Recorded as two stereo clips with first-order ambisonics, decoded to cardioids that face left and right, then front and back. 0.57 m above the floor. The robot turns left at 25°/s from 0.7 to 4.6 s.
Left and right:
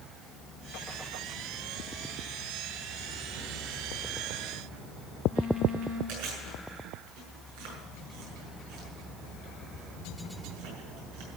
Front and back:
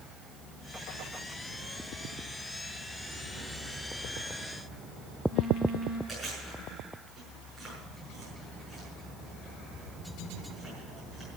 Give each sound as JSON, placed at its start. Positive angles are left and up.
{"t": 3.3, "sound": "a phone buzzing", "azimuth_deg": -75, "distance_m": 6.0}
{"t": 6.1, "sound": "chewing", "azimuth_deg": -90, "distance_m": 6.5}